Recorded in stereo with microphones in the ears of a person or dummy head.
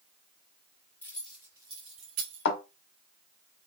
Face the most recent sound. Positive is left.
turn(degrees=60)  # may be behind; listen again after turning